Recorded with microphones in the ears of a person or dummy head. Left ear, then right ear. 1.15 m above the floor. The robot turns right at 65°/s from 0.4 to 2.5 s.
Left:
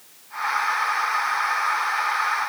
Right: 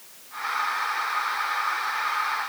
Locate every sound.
Only background noise.